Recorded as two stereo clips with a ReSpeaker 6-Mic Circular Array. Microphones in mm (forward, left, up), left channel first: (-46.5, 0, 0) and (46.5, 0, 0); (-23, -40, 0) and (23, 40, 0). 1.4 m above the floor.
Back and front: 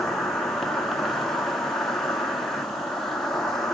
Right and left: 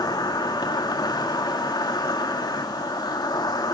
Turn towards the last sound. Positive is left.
turn(degrees=-95)